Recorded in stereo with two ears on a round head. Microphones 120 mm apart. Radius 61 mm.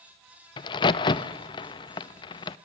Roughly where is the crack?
Left.